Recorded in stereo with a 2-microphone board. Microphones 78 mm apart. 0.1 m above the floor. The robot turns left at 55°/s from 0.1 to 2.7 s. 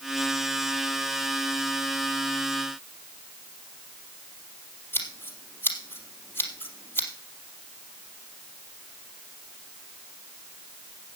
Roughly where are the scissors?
Left.